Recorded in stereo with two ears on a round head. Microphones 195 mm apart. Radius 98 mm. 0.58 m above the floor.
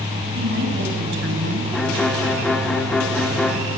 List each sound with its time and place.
0.3 s a woman speaking: 55° right (ahead or behind), 5 m; by 1.6 s 60° right (ahead or behind), 4 m
1.7 s a violin: centre (ahead or behind), 1.6 m